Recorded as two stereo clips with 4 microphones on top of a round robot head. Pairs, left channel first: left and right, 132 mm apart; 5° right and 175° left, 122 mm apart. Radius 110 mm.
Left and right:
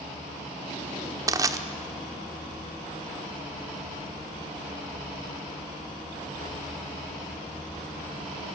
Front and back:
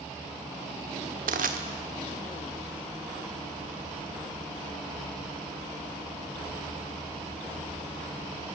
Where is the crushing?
150° right, 1.1 m.